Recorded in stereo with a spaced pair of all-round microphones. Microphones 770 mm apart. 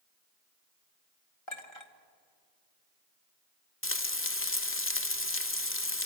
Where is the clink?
35° left (ahead or behind), 1.7 m.